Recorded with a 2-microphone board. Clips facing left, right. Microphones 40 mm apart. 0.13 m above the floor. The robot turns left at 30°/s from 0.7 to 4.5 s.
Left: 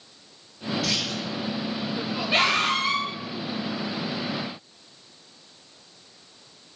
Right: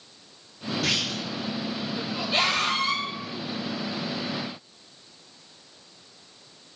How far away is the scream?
About 2.5 m.